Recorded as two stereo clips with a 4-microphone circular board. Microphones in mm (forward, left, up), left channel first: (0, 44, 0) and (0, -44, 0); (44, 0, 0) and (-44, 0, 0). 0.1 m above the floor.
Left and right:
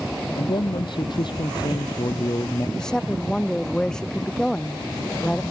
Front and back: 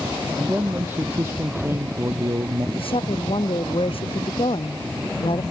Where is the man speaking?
110° left; by 2.7 s 135° left.